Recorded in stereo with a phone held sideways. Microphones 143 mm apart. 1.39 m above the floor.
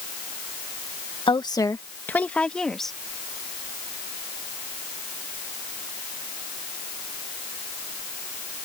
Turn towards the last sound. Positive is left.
turn(degrees=0)  # may be behind; listen again after turning